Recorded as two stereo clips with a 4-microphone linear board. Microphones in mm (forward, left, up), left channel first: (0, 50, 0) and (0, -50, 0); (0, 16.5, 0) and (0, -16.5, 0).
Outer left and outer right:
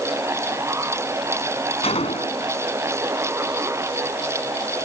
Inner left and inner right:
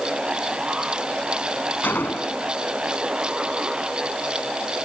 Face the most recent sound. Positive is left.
turn(degrees=80)